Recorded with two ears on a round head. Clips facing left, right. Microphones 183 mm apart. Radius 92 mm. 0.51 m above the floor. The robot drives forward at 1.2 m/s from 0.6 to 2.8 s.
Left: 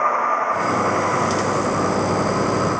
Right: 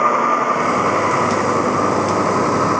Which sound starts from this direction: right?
A vehicle, at 0.0 s.